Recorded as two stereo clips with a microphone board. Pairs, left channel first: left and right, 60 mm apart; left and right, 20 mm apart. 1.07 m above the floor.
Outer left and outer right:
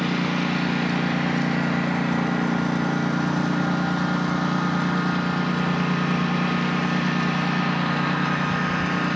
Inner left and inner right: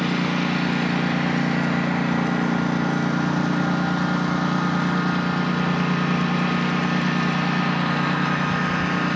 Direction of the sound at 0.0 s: Centre (ahead or behind).